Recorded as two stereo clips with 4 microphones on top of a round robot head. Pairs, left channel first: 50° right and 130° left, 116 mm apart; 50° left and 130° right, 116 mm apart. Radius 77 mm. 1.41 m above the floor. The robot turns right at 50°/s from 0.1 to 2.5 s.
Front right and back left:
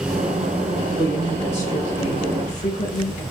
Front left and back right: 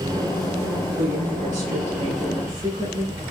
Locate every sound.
1.0 s a woman speaking: 145° right, 2.5 m; by 3.2 s 70° right, 2.5 m